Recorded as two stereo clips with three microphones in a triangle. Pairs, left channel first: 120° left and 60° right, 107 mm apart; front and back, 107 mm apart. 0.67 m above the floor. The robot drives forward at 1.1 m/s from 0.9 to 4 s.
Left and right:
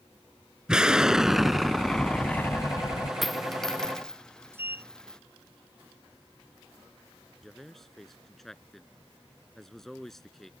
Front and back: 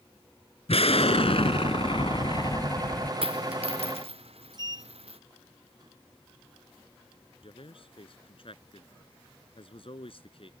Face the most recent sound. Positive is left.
turn(degrees=30)